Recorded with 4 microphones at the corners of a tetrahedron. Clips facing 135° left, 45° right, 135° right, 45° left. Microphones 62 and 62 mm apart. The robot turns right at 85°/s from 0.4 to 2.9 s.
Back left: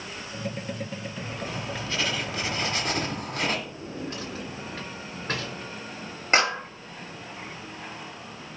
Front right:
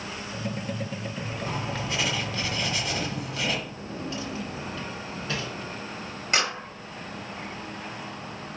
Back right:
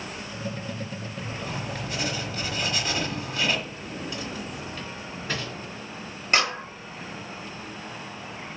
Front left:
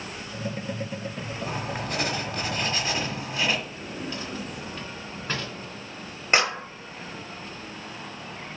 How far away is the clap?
About 1.2 m.